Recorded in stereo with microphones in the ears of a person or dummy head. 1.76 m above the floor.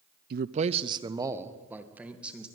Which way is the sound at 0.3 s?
55° right (ahead or behind).